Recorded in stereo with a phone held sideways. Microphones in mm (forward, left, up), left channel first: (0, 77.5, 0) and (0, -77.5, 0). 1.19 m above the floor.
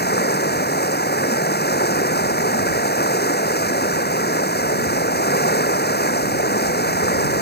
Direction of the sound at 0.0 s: 85° left.